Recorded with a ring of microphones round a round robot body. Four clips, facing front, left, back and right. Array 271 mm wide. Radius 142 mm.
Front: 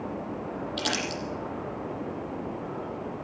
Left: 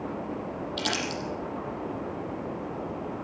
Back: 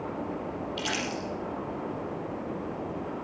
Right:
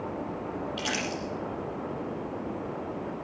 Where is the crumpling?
45° left, 6 m.